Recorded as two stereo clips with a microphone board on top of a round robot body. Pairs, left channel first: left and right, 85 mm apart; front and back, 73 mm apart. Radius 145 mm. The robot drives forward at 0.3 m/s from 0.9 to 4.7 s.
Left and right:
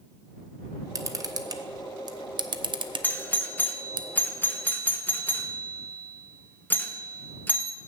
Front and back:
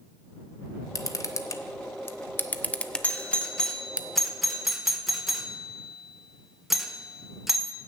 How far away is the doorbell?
About 1.5 m.